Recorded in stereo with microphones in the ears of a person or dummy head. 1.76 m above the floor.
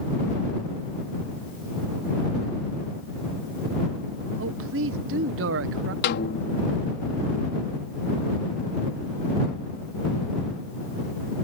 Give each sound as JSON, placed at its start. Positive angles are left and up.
{"t": 4.4, "sound": "a man speaking", "side_deg": -65}
{"t": 6.0, "sound": "a snare drum", "side_deg": 55}